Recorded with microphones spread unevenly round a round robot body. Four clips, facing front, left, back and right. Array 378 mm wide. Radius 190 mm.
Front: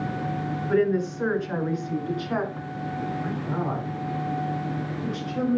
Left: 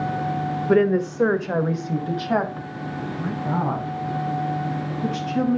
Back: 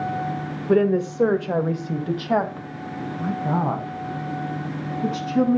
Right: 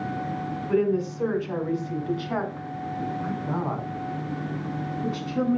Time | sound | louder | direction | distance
0.7 | a woman speaking | left 5 dB, back 4 dB | 130° left | 1.4 m